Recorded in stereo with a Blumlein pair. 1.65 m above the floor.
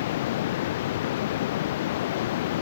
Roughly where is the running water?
Ahead left.